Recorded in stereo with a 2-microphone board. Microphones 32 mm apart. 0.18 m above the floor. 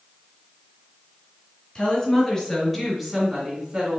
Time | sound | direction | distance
1.8 | a woman speaking | 25° left (ahead or behind) | 2 m